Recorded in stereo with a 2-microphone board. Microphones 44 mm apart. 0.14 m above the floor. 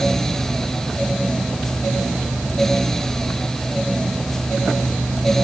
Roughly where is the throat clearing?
No throat clearing in this recording.